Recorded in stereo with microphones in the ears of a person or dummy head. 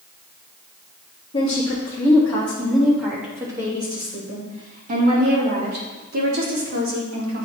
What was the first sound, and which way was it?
A woman speaking, 25° left (ahead or behind).